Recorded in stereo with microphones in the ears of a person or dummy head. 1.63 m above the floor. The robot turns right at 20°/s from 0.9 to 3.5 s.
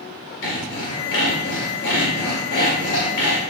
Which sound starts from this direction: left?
Sawing, at 0.4 s.